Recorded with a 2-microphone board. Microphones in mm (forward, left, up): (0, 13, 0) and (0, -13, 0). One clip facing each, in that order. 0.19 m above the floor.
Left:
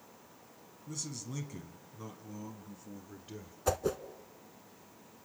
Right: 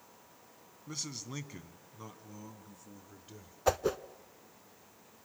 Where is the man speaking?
40° right (ahead or behind), 1.3 m; by 3.6 s 15° left (ahead or behind), 2 m.